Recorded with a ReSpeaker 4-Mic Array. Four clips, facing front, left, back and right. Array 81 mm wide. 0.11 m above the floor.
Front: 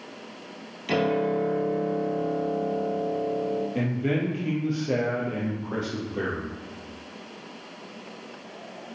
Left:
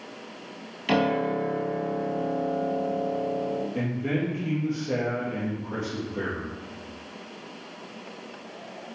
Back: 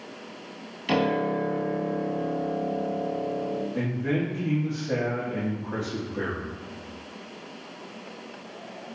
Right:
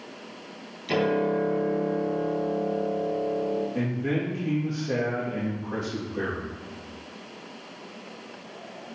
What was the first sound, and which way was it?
A piano, 105° left.